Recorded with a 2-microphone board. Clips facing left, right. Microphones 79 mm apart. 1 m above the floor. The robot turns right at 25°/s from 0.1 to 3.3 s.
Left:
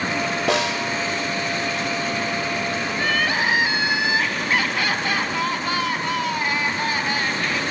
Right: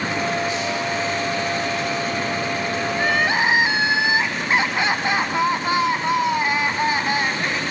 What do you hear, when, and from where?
0.5 s a snare drum: 70° left (ahead or behind), 2 m; by 0.9 s 80° left, 2 m
2.9 s crying: 15° right (ahead or behind), 1.4 m; by 7.6 s 20° right (ahead or behind), 1.4 m